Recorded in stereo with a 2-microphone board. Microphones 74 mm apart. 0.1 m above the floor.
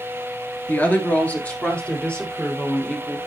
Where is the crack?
No crack in this recording.